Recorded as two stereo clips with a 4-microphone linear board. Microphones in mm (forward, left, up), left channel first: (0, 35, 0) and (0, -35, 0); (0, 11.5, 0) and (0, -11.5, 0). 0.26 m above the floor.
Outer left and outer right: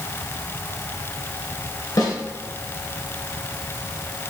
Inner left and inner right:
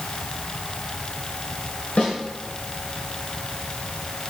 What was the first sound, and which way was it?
A snare drum, 65° left (ahead or behind).